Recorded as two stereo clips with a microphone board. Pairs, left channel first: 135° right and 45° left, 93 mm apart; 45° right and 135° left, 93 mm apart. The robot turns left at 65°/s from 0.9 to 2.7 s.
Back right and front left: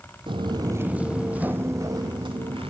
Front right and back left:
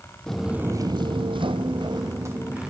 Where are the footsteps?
35° left, 0.7 m; by 2.7 s 50° left, 2 m.